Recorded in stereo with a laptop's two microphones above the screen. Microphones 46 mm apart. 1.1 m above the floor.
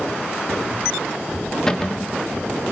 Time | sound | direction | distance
1.7 | a cupboard door | 15° left (ahead or behind) | 1.2 m